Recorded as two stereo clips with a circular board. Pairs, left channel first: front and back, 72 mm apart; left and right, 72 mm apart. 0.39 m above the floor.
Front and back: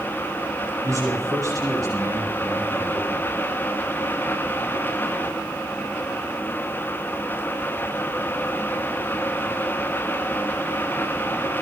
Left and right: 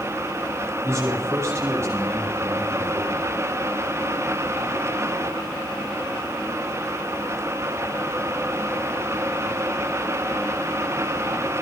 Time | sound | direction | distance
0.8 | a man speaking | 140° right | 9.5 m